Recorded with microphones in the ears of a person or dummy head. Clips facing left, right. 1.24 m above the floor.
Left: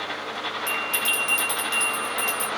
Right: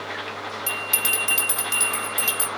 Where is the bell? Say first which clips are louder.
Left 1 dB; 75° right (ahead or behind), 2 m.